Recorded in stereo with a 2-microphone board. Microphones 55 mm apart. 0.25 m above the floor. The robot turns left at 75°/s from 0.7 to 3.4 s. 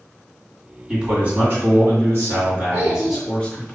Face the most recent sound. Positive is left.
turn(degrees=-155)